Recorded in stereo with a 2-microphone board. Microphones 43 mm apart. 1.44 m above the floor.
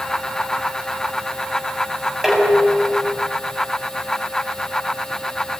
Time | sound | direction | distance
2.2 | dishes clattering | 5° right (ahead or behind) | 7 m